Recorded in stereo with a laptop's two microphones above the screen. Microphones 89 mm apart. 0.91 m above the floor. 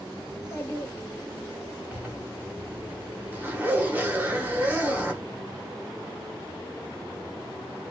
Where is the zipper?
20° right (ahead or behind), 0.9 m.